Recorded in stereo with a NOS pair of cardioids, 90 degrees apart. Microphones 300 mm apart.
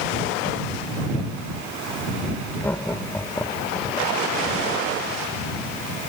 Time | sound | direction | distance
2.6 | laughter | 5° left | ?